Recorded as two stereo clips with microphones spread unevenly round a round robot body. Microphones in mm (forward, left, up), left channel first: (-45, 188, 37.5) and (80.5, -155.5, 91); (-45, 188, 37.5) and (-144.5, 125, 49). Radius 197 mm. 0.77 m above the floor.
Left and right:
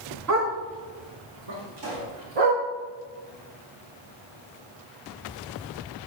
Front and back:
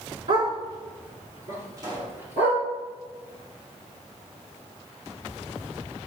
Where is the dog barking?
120° right, 3 m; by 2.6 s 80° right, 4.5 m.